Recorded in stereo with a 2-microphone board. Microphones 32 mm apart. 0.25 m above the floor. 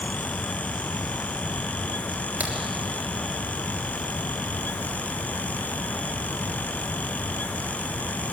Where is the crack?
65° right (ahead or behind), 3.5 m.